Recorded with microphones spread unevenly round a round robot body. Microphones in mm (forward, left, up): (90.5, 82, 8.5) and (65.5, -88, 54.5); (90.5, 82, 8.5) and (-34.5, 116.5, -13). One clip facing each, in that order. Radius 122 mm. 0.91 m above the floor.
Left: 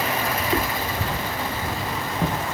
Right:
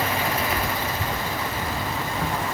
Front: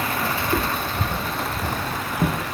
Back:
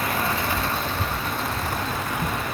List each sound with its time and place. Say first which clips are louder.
0.4 s footsteps: left 2 dB, front 2 dB; 20° left; by 2.5 s 10° left